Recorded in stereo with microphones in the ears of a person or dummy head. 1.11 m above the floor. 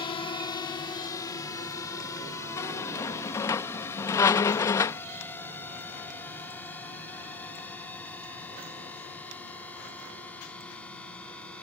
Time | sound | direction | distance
0.0 | a drone | 25° left (ahead or behind) | ?
2.6 | a squeak | 15° left (ahead or behind) | ?